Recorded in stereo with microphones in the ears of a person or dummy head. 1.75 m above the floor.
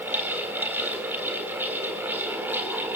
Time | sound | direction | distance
0.0 | a fan | 10° right (ahead or behind) | 3.5 m